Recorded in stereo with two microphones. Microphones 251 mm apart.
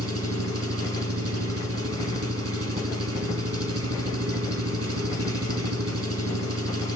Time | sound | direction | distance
0.0 | an engine running | 65° right (ahead or behind) | 2.5 m